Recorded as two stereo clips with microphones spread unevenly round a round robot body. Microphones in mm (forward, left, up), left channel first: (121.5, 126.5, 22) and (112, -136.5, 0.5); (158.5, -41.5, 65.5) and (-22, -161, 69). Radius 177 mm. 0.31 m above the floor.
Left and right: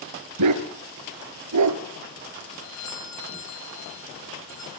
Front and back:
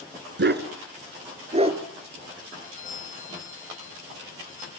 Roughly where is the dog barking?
Behind right.